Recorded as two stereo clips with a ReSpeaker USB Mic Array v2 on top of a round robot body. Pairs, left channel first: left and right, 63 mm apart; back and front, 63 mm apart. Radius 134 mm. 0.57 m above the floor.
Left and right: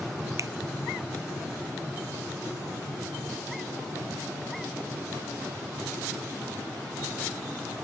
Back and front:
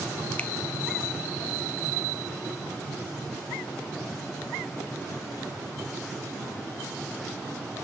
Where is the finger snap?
115° right, 0.6 m.